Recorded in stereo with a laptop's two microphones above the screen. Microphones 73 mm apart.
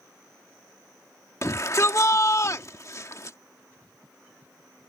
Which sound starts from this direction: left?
A shout, at 1.4 s.